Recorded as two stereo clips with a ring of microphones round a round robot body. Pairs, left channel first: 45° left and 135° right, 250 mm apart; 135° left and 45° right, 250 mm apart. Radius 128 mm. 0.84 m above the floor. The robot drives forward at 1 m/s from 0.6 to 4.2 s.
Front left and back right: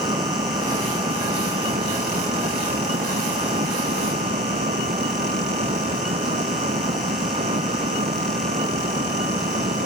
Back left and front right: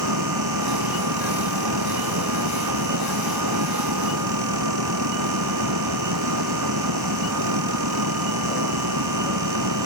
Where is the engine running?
60° right; by 9.9 s 65° right.